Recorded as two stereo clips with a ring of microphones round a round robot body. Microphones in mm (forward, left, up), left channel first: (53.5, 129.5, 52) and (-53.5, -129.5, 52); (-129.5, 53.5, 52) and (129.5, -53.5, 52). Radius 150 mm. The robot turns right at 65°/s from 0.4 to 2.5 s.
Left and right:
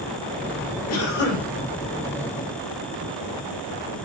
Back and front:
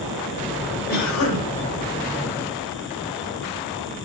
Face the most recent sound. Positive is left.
turn(degrees=-150)